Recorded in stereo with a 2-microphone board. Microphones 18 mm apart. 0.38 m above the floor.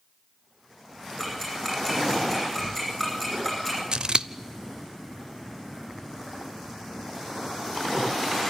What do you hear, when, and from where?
1.2 s ticking: 5° left (ahead or behind), 10 m
3.9 s scissors: 50° right (ahead or behind), 0.6 m